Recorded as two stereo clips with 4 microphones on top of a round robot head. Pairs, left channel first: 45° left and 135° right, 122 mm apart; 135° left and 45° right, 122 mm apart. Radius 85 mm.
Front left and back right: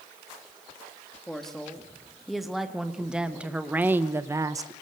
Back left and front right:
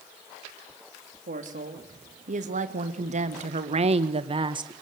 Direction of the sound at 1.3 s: 40° right.